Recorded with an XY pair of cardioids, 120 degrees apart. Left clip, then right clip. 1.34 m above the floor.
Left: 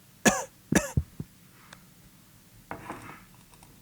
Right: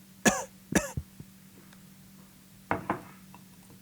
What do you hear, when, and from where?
0.2 s a cough: 15° left